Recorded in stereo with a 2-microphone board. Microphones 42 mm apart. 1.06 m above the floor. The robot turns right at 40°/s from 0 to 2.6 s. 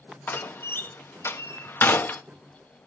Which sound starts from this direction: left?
A door slam, at 0.3 s.